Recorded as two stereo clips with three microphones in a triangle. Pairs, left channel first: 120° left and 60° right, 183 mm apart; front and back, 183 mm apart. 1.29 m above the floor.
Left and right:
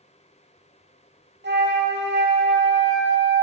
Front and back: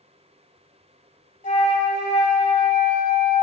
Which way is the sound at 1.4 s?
45° right.